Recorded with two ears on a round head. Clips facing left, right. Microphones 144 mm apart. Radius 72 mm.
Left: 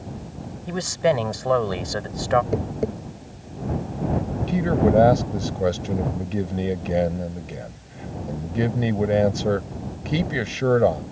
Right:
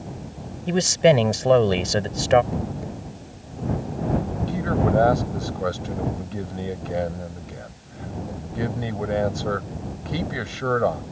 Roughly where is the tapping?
Left.